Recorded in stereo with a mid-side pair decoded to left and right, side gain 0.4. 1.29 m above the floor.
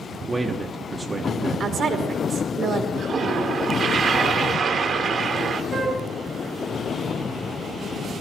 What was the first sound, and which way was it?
A man speaking, 20° right.